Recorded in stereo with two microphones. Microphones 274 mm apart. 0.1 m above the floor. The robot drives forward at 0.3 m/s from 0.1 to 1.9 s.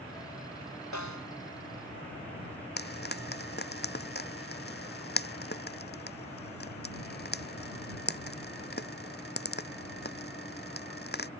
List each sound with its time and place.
0.9 s a snare drum: 85° left
2.8 s frying: 40° left (ahead or behind)